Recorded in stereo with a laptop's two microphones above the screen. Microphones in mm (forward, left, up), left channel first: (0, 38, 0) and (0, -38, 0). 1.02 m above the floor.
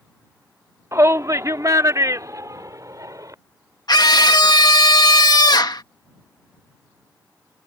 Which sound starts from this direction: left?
A scream, at 3.9 s.